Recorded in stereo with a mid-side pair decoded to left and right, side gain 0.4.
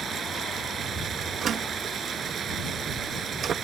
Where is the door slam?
65° right.